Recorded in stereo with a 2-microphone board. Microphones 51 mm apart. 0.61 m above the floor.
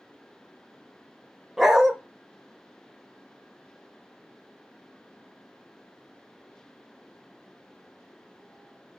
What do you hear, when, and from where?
1.6 s a dog barking: 5° right (ahead or behind), 0.9 m